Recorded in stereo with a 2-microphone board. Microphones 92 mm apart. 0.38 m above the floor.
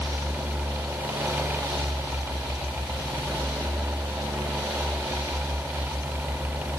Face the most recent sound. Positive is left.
No sound to turn to.